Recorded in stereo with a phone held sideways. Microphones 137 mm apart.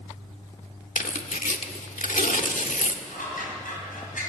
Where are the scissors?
75° left (ahead or behind), 5.5 m.